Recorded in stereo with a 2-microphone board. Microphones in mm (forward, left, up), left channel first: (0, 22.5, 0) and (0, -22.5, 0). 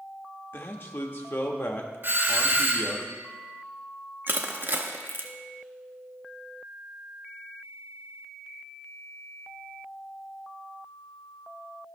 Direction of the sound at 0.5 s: 55° left (ahead or behind).